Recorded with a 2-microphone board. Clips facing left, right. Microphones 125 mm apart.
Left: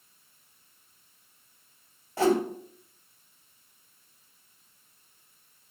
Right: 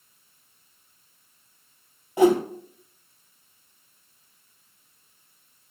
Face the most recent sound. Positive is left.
turn(degrees=-20)  # may be behind; listen again after turning